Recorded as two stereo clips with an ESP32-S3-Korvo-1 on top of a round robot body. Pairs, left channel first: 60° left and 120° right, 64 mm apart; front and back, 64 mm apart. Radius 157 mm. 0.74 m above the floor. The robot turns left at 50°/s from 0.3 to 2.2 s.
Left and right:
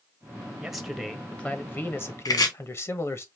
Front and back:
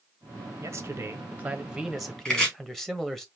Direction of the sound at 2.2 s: 75° left.